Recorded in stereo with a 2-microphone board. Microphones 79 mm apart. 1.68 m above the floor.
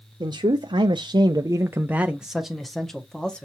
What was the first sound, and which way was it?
A man speaking, 70° right (ahead or behind).